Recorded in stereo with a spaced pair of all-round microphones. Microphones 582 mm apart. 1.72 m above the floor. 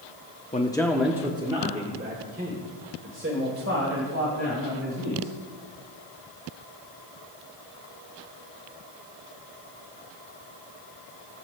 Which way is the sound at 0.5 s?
15° left (ahead or behind).